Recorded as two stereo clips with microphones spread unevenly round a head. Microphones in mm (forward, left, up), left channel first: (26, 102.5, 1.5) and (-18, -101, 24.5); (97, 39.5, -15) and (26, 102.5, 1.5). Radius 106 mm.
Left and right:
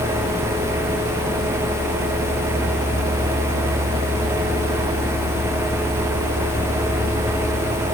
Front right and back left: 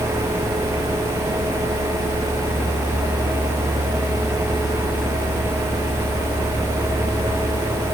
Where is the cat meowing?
No cat meowing in this recording.